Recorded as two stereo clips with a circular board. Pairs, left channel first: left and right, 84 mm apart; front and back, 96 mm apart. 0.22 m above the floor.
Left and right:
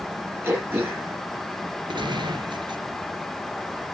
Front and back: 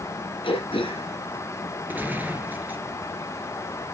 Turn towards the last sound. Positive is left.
turn(degrees=-110)